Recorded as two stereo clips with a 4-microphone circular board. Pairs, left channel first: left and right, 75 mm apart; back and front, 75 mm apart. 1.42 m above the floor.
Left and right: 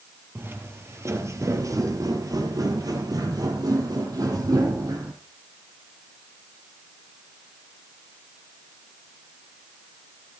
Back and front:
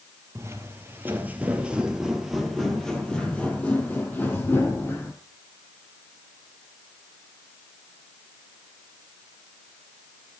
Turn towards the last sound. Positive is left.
turn(degrees=-125)